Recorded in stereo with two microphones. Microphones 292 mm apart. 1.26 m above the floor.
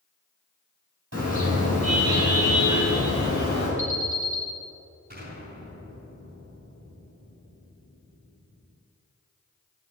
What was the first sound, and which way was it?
A car horn, 55° right (ahead or behind).